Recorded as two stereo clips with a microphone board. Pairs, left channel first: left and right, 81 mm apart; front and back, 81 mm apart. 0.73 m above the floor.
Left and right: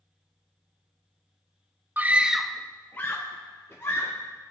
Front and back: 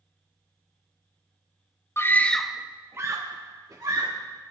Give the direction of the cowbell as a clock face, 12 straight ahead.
No cowbell in this recording.